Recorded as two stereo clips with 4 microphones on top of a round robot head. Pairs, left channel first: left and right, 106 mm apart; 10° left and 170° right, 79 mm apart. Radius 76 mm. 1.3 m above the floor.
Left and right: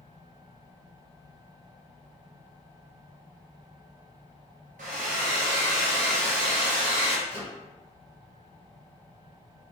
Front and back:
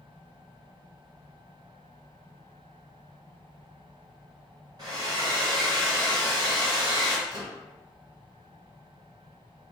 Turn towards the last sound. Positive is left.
turn(degrees=-130)